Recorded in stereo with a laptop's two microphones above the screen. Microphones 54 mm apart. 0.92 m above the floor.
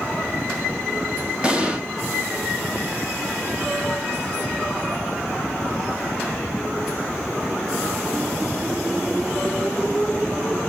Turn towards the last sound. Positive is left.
turn(degrees=-20)  # may be behind; listen again after turning